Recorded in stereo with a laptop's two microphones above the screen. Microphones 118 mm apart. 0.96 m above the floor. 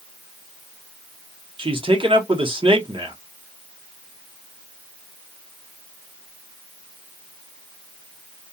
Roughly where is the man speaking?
Right.